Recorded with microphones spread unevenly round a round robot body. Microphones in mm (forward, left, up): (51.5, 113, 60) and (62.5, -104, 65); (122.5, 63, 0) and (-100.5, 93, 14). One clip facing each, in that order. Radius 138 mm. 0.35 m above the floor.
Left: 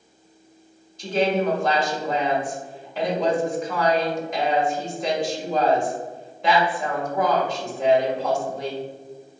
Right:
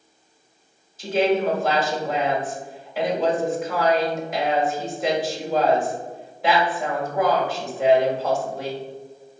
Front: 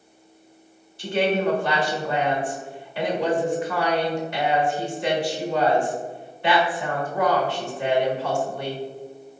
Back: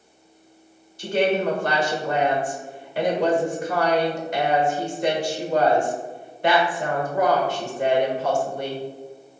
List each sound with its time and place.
1.0 s a woman speaking: 170° right, 1.3 m